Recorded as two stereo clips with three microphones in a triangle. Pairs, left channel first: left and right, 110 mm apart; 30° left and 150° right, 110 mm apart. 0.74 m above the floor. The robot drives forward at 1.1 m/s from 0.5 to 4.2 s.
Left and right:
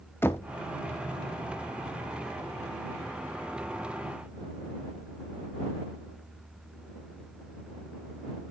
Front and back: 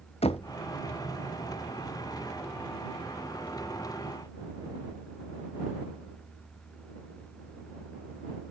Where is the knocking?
25° left, 0.8 m.